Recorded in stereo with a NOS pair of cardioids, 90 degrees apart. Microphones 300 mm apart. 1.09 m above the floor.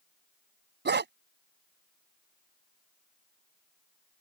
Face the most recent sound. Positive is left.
turn(degrees=-35)